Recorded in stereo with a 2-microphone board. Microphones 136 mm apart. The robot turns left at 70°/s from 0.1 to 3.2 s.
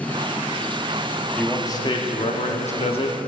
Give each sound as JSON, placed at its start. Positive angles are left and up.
{"t": 1.4, "sound": "a man speaking", "azimuth_deg": 170, "distance_m": 0.9}